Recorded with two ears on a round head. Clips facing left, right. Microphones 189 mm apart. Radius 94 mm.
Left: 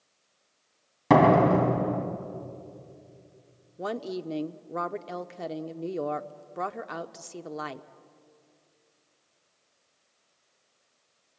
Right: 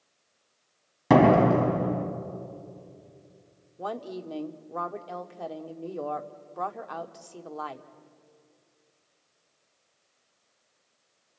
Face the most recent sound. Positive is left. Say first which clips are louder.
# left 3 dB
turn(degrees=25)  # may be behind; listen again after turning